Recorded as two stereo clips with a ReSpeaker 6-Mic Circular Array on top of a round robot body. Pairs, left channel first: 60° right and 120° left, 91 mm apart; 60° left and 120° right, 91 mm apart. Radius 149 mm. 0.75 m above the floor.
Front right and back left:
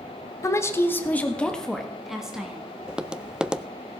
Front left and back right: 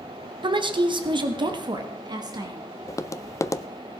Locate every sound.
0.4 s a woman speaking: 110° right, 1.5 m; by 2.6 s 160° right, 1.9 m
2.9 s tapping: 45° left, 0.7 m